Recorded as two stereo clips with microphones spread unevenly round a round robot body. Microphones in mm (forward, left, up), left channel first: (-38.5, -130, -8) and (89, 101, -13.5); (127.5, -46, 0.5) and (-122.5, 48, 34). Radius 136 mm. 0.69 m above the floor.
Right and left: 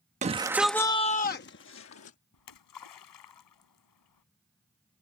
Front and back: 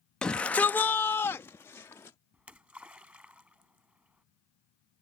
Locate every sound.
0.2 s a shout: 50° left; by 2.2 s 100° right
2.3 s a splash: 115° right